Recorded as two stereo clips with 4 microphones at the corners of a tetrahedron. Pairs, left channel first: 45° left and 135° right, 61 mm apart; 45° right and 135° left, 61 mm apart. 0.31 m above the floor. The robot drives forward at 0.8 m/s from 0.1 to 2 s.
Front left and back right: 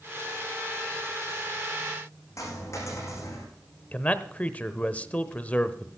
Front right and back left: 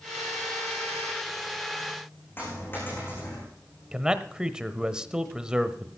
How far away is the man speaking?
About 0.9 m.